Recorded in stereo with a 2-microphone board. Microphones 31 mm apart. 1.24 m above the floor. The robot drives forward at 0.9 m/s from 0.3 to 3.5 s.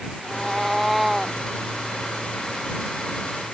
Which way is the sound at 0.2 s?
5° right (ahead or behind).